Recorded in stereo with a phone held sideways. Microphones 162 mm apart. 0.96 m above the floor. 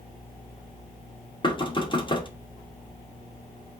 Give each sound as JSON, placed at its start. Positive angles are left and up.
{"t": 1.4, "sound": "knocking", "side_deg": 30, "distance_m": 1.0}